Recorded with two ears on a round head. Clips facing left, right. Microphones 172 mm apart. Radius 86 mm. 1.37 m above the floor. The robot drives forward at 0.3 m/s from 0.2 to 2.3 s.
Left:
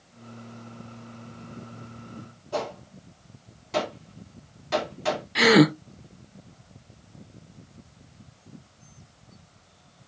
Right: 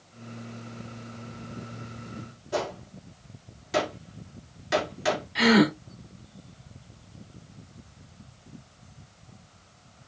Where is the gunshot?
15° right (ahead or behind), 2.5 m.